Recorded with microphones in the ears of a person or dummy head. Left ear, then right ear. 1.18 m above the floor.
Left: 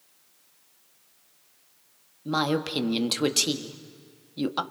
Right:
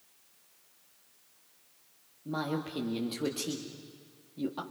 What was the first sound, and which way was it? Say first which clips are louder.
A woman speaking: left 9 dB; 55° left (ahead or behind).